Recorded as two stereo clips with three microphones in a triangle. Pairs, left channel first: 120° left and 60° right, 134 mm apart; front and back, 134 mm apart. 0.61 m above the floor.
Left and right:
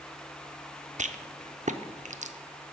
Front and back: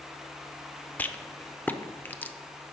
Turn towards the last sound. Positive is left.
turn(degrees=-75)